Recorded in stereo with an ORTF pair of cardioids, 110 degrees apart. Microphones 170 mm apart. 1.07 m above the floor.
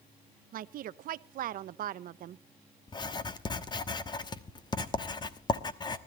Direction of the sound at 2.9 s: 25° left.